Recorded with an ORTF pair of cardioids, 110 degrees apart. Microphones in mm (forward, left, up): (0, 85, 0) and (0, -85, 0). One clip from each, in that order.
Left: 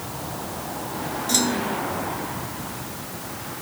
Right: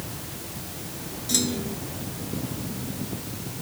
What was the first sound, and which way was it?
A clunk, 10° left.